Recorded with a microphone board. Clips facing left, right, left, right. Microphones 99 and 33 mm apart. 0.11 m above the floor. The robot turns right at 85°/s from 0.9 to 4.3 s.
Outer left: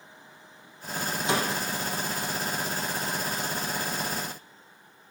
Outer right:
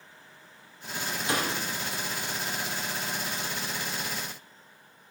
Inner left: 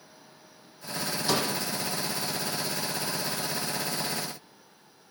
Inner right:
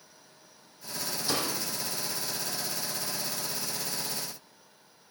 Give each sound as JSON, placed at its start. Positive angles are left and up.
{"t": 1.3, "sound": "a door slam", "side_deg": 25, "distance_m": 3.5}